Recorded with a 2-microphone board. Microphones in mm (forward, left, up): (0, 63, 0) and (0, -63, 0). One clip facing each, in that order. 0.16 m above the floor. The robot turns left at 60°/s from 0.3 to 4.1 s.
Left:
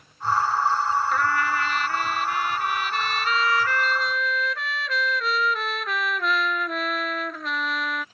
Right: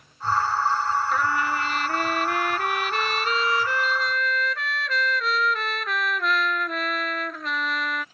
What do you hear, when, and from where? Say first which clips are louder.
1.1 s a trumpet: left 1 dB; 5° right; by 8.1 s 175° left